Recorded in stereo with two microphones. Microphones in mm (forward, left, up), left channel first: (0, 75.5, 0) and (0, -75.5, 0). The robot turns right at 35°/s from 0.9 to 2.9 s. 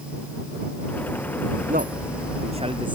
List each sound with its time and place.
1.7 s a man speaking: 75° right; by 3.0 s 35° right